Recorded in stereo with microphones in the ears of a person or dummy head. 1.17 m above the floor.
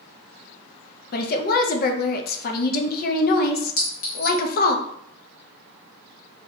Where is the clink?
45° left (ahead or behind), 1.1 m.